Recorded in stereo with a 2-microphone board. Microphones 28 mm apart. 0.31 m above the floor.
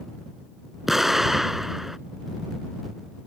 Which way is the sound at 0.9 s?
10° right (ahead or behind).